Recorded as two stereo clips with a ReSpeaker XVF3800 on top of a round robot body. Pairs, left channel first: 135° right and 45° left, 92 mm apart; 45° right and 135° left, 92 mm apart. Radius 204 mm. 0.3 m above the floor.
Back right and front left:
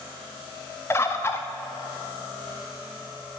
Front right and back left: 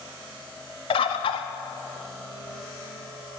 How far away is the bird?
About 0.6 m.